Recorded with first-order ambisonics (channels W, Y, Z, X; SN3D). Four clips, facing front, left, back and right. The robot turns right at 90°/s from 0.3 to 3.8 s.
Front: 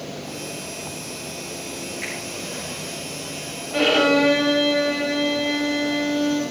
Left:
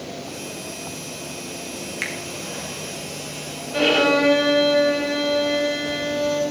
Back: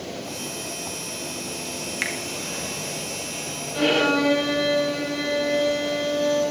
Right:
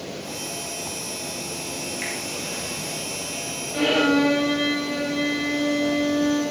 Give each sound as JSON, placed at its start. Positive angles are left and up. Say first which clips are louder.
{"t": 2.0, "sound": "a finger snap", "louder": "left 4 dB, back 5 dB", "azimuth_deg": 150, "distance_m": 1.9}
{"t": 3.7, "sound": "a violin", "louder": "left 2 dB, front 3 dB", "azimuth_deg": 20, "distance_m": 3.5}